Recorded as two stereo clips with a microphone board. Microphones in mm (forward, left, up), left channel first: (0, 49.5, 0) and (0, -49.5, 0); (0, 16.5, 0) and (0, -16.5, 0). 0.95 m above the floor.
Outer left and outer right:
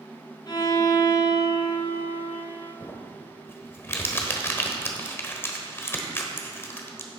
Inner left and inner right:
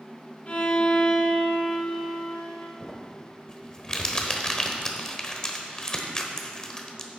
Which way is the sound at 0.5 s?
45° left (ahead or behind).